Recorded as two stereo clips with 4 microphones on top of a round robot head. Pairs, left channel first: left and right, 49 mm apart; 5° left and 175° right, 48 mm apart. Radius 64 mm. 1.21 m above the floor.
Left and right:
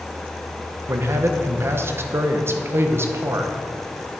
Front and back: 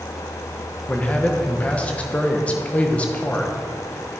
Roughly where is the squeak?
No squeak in this recording.